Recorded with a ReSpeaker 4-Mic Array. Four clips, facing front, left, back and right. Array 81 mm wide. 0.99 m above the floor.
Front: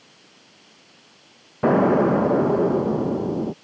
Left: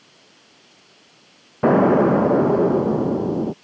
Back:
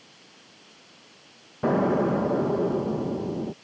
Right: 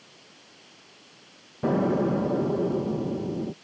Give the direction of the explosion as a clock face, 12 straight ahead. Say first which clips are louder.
Left 9 dB, front 5 dB; 10 o'clock.